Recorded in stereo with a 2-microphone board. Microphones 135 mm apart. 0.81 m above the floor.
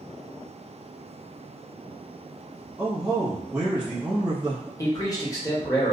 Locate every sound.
2.8 s a man speaking: 5° right (ahead or behind), 1.0 m
4.8 s a man speaking: 25° left (ahead or behind), 0.9 m